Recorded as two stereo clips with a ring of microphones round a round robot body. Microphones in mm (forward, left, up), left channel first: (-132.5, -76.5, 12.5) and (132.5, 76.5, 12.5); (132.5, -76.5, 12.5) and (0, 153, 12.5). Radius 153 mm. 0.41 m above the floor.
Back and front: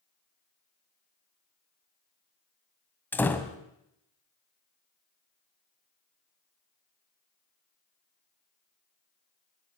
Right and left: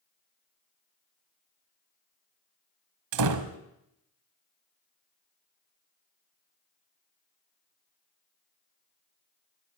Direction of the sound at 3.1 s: 125° left.